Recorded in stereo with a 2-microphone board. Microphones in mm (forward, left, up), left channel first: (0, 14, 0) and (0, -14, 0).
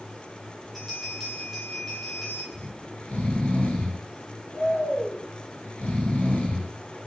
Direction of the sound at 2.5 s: 65° left (ahead or behind).